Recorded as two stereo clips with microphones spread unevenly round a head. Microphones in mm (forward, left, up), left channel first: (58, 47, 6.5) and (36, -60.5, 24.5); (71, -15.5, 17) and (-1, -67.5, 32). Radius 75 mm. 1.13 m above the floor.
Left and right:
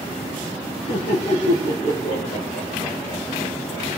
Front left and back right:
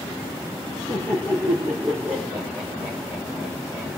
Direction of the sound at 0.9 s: 100° left.